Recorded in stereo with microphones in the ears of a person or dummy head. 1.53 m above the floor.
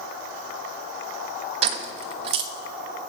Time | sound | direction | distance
1.6 | keys jangling | 35° right (ahead or behind) | 0.9 m